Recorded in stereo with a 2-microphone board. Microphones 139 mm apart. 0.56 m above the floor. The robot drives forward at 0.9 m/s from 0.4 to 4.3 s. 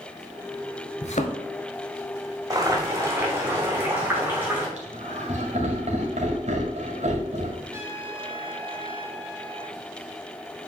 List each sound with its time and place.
1.0 s a thud: 55° left (ahead or behind), 0.9 m; by 1.4 s 60° left (ahead or behind), 0.9 m
2.5 s boiling: 25° right (ahead or behind), 1.8 m; by 4.7 s 15° right (ahead or behind), 3.5 m
4.8 s laughter: 60° right (ahead or behind), 2.5 m
7.7 s a trumpet: 20° right (ahead or behind), 2 m